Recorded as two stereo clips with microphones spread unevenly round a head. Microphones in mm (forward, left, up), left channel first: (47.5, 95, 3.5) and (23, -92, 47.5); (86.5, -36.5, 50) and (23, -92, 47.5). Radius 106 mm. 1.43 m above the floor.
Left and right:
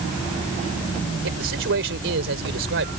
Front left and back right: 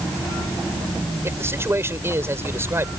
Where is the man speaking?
80° right.